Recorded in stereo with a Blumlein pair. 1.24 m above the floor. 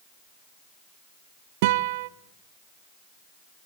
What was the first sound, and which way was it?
A guitar, 50° right.